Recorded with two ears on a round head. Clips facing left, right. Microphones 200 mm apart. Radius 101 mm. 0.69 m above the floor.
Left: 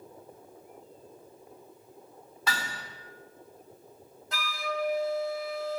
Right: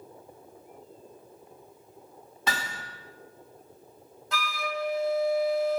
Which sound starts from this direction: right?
A flute, at 4.3 s.